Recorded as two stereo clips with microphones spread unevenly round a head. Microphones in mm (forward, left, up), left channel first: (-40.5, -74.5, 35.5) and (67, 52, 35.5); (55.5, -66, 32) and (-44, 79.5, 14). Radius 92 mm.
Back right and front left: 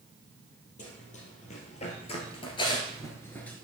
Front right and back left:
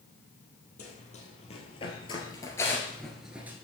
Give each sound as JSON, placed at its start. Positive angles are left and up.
{"t": 0.8, "sound": "running footsteps", "azimuth_deg": -95, "distance_m": 2.5}